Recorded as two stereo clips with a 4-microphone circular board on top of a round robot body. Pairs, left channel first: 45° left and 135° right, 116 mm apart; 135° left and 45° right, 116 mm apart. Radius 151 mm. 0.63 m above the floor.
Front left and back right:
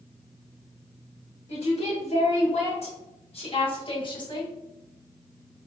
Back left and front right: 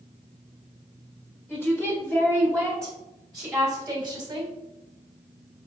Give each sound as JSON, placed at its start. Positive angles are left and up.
{"t": 1.5, "sound": "a woman speaking", "azimuth_deg": 65, "distance_m": 2.0}